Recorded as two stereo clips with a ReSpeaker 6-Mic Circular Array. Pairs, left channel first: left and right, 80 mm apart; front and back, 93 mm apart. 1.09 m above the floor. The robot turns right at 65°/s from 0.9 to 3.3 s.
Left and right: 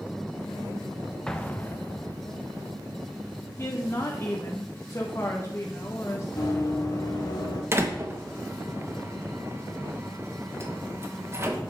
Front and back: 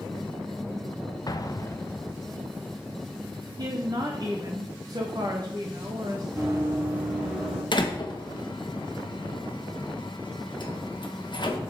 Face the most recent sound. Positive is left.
turn(degrees=-35)